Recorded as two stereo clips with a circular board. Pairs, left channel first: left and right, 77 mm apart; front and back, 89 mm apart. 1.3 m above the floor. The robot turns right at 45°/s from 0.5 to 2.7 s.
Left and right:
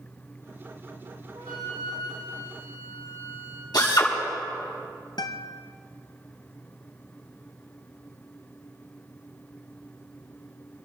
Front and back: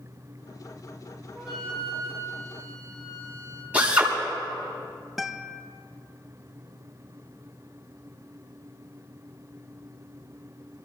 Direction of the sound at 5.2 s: 95° left.